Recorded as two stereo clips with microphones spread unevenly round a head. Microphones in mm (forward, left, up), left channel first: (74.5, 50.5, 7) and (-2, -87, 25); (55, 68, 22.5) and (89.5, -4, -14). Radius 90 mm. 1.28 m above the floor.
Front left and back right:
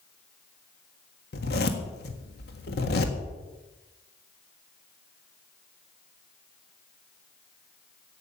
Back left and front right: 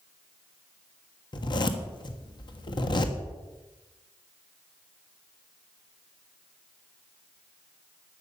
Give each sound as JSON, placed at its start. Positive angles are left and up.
{"t": 1.3, "sound": "a zipper", "azimuth_deg": 100, "distance_m": 1.5}